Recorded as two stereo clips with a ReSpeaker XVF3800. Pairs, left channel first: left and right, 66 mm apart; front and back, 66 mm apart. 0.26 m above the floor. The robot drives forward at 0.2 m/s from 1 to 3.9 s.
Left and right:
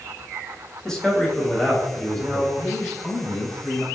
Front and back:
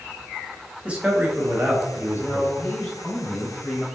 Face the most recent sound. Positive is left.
turn(degrees=75)